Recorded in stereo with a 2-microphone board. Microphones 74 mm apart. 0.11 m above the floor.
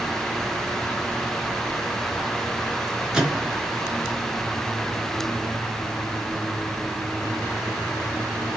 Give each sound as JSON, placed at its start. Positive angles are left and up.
{"t": 3.1, "sound": "a microwave", "side_deg": -10, "distance_m": 1.3}